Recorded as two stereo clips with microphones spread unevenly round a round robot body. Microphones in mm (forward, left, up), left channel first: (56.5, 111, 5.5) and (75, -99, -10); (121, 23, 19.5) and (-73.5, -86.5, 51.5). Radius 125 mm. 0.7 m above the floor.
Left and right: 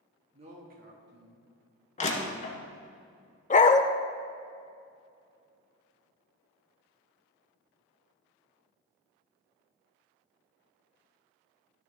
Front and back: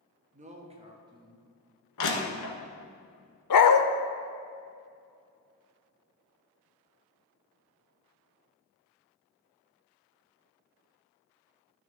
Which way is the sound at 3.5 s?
45° left.